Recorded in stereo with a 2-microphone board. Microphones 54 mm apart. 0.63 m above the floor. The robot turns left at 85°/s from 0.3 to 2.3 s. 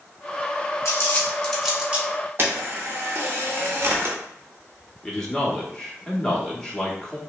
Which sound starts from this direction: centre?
A man speaking, at 5.0 s.